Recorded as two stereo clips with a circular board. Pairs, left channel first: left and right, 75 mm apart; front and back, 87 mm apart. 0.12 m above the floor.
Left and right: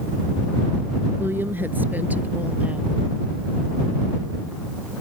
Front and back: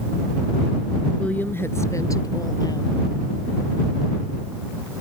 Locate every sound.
1.2 s a woman speaking: 65° right; by 3.0 s 20° right